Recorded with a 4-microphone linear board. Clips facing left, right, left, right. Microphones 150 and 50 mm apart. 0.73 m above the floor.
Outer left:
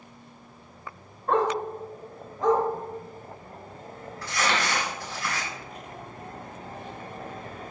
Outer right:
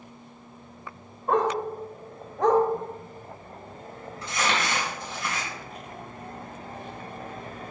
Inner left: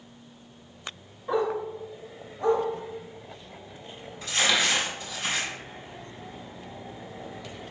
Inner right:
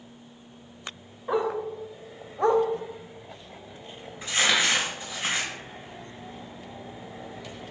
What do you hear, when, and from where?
1.3 s a dog barking: 10° right (ahead or behind), 1.1 m; by 2.6 s 70° right (ahead or behind), 1.2 m
4.2 s crumpling: 15° right (ahead or behind), 2.5 m